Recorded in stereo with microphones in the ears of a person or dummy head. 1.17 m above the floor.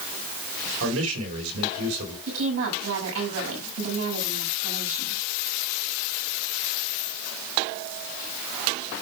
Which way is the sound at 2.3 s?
85° right.